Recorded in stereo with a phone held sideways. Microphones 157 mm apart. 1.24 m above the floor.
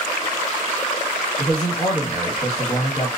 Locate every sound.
1.4 s a man speaking: 60° left (ahead or behind), 1.8 m